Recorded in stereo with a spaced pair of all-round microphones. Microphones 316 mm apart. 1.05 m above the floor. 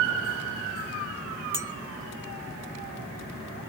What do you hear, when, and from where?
1.5 s a clink: 10° right (ahead or behind), 0.8 m